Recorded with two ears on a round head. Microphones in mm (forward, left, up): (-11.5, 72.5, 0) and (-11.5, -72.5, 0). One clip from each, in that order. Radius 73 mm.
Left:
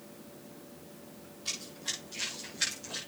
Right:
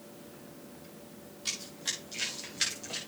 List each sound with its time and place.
1.4 s running footsteps: 50° right (ahead or behind), 7.5 m